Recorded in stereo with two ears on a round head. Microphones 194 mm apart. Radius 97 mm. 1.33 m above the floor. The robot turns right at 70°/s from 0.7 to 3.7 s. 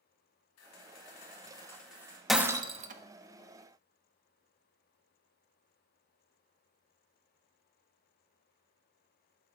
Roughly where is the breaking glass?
Centre.